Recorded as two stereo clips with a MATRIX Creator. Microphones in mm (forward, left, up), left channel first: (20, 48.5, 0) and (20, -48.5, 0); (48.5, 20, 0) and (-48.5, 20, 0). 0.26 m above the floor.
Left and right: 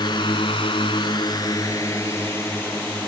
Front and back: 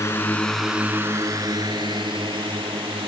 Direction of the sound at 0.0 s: 55° left.